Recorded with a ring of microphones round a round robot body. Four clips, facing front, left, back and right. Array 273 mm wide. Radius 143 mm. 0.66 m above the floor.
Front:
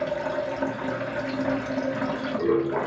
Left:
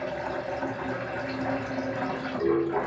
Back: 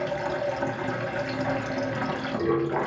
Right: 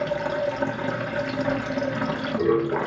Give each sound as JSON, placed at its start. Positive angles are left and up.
{"t": 0.0, "sound": "running water", "azimuth_deg": -95, "distance_m": 0.8}